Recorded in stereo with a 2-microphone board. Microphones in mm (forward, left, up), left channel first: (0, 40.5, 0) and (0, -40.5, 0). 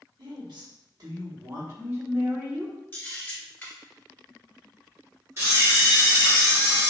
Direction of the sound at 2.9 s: 25° left (ahead or behind).